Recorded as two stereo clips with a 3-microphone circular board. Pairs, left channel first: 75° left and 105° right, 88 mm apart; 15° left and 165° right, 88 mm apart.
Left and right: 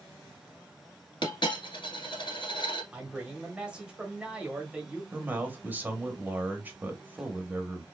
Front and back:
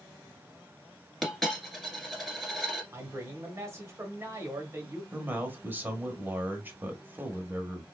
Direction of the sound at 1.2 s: 100° left.